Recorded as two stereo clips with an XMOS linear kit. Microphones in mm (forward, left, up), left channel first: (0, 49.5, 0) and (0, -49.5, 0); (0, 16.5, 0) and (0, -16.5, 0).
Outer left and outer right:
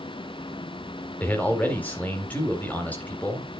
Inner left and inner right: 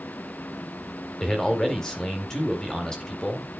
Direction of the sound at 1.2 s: 15° left (ahead or behind).